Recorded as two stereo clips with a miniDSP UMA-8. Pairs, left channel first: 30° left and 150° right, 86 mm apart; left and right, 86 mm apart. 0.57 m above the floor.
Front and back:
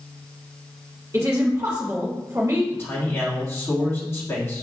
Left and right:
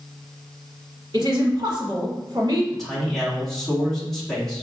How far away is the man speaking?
About 1.2 m.